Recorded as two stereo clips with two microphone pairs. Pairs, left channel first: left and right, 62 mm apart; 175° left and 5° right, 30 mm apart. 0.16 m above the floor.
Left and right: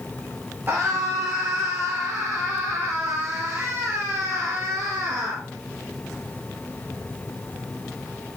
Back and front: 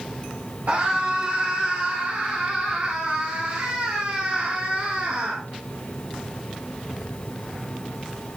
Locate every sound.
0.7 s a scream: 30° right, 3 m